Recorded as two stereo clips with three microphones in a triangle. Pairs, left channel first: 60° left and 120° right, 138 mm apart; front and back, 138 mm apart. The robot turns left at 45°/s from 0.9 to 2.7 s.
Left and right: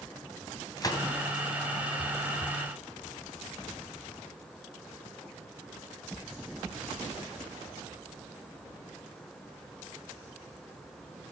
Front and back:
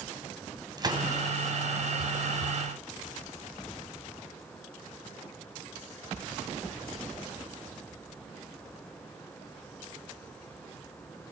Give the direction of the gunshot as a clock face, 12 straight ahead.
8 o'clock.